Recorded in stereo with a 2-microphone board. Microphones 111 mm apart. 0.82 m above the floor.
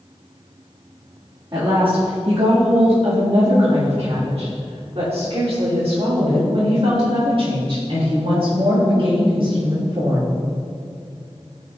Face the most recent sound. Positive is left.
turn(degrees=-45)  # may be behind; listen again after turning